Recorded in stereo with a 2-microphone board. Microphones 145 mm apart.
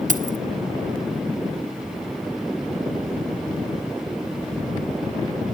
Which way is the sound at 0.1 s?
60° right (ahead or behind).